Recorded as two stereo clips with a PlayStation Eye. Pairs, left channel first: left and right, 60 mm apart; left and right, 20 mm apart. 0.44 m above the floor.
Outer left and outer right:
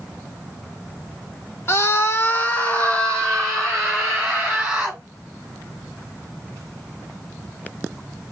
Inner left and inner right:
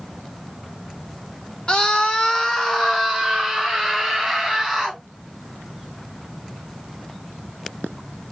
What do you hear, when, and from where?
1.7 s a scream: 45° left (ahead or behind), 1.2 m; by 5.0 s centre (ahead or behind), 3 m